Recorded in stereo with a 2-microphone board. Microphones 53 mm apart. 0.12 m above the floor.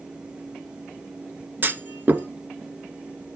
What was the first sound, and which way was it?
A clunk, 40° right (ahead or behind).